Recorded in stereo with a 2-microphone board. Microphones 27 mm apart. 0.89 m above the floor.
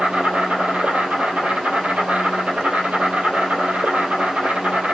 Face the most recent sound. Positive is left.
turn(degrees=-60)  # may be behind; listen again after turning